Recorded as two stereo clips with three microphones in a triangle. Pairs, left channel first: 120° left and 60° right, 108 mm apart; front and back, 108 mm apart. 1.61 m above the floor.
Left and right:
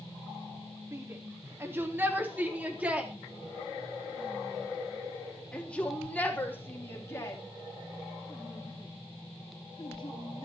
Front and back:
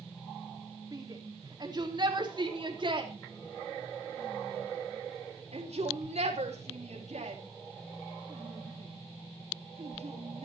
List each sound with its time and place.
0.9 s a shout: 125° right, 4 m; by 10.4 s 165° left, 4.5 m